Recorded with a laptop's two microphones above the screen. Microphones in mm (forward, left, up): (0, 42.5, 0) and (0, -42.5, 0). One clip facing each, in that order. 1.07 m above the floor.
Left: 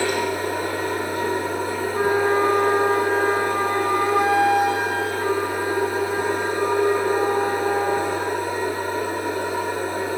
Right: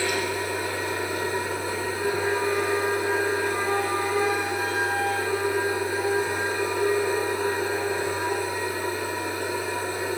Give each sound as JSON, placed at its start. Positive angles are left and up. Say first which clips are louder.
{"t": 0.0, "sound": "a machine running", "louder": "left 4 dB", "side_deg": 45, "distance_m": 8.5}
{"t": 1.9, "sound": "a flute", "louder": "left 8 dB", "side_deg": 65, "distance_m": 9.0}